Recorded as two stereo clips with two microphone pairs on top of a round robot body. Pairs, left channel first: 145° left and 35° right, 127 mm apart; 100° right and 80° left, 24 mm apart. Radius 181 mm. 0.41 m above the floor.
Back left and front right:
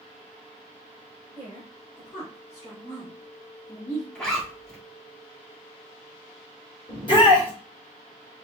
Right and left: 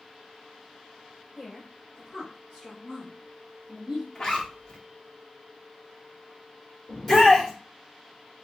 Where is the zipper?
140° right, 1.8 m.